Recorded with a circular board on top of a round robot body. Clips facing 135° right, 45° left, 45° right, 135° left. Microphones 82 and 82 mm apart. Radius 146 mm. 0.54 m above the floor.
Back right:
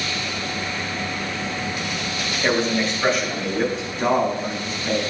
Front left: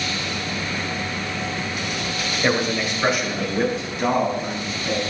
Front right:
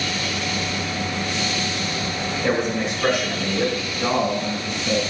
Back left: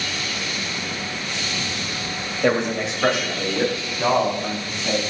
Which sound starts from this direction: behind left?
A man speaking, at 2.4 s.